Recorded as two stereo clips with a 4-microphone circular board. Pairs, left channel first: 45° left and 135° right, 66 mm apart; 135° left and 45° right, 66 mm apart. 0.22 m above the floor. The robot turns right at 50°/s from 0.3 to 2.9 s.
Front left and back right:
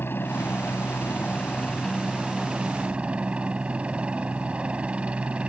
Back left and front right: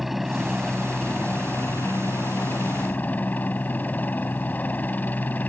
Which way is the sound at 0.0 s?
40° left.